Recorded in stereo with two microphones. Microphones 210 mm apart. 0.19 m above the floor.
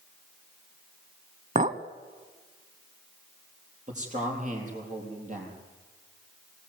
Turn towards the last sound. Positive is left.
turn(degrees=-35)  # may be behind; listen again after turning